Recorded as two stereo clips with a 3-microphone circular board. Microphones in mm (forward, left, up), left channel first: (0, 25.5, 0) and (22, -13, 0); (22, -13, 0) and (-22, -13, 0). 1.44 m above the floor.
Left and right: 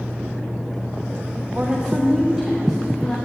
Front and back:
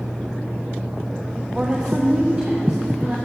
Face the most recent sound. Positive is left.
turn(degrees=-145)